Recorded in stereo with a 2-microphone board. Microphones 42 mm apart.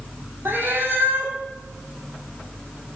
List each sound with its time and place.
0.5 s a cat meowing: 65° right (ahead or behind), 1.8 m